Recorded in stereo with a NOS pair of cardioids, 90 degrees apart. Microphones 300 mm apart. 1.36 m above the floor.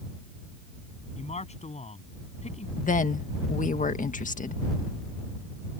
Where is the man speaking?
20° left.